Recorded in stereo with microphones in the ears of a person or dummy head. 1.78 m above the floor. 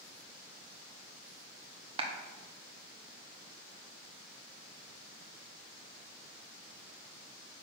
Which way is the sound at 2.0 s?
30° right (ahead or behind).